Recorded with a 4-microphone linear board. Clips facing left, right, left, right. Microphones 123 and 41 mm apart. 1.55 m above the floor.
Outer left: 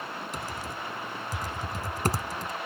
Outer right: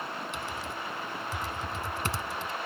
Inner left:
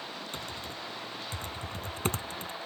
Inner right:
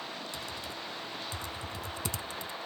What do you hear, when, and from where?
0.3 s typing on a keyboard: 40° left (ahead or behind)